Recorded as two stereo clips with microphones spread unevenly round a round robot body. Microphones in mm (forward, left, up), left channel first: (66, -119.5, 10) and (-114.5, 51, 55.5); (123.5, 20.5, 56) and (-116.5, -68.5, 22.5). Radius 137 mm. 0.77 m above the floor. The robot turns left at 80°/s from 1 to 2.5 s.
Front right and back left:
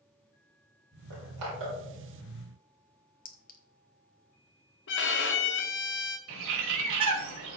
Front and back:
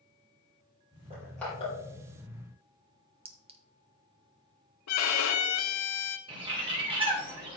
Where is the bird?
130° left, 3 m.